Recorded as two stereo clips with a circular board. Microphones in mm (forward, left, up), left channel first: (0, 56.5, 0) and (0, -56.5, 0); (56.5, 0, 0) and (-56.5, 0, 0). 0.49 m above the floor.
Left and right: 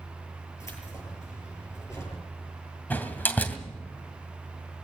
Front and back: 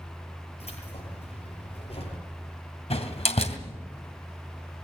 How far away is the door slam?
About 2.5 m.